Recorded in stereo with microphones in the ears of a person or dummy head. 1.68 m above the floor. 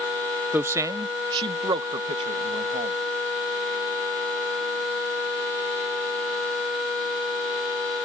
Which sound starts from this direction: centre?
A man speaking, at 0.5 s.